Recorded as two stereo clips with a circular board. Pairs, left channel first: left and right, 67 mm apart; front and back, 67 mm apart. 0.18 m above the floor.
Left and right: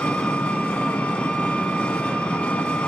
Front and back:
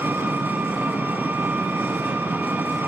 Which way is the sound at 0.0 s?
150° left.